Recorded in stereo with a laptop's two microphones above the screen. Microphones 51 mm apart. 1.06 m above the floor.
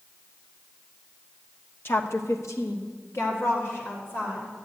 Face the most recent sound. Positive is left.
turn(degrees=50)  # may be behind; listen again after turning